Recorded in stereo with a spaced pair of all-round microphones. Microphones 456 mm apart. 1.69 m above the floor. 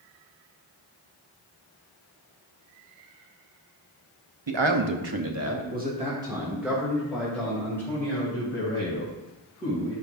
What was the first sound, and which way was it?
A man speaking, 70° right (ahead or behind).